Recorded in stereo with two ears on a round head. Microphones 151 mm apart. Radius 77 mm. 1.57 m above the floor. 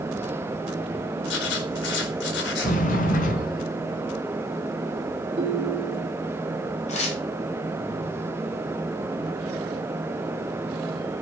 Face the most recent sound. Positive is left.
turn(degrees=45)  # may be behind; listen again after turning